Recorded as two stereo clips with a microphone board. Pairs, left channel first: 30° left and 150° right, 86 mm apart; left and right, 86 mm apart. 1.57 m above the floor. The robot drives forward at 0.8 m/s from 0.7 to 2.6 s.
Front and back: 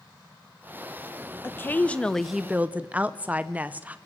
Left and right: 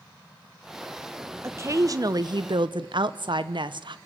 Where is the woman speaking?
35° right, 1.3 m; by 4.0 s 80° right, 0.8 m.